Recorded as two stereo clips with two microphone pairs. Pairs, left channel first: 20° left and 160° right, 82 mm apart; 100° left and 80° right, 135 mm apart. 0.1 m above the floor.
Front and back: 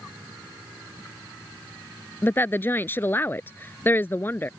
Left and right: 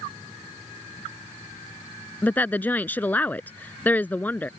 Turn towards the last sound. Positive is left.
turn(degrees=40)